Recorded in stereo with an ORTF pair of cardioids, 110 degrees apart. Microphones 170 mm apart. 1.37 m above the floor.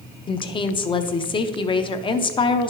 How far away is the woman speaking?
About 0.8 m.